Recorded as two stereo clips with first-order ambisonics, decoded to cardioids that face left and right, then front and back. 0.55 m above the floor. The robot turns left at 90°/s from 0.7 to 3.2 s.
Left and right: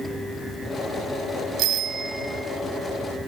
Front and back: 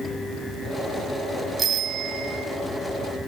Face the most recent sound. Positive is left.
turn(degrees=100)